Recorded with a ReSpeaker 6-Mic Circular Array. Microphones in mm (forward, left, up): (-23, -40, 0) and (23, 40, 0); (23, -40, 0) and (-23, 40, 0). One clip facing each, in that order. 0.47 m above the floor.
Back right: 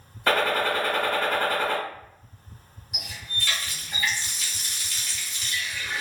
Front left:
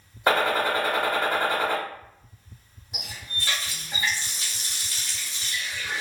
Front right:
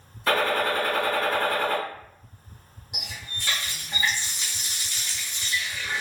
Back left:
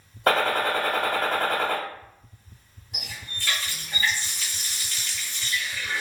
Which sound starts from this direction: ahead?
A running tap, at 2.9 s.